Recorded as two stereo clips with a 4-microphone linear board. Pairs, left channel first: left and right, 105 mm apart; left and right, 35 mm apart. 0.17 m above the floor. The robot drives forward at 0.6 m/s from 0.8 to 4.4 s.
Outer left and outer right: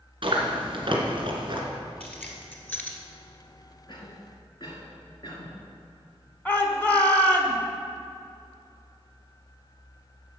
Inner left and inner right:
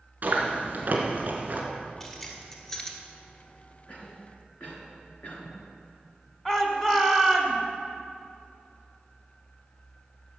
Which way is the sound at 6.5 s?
15° left (ahead or behind).